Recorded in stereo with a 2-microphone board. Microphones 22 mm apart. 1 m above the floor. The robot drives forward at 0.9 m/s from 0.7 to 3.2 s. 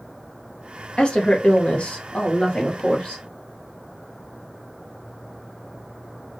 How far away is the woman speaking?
About 1.5 m.